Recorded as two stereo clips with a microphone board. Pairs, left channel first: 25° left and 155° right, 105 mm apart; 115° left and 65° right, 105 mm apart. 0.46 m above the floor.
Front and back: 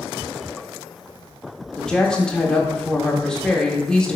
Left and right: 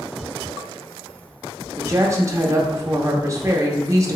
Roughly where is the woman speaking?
Ahead right.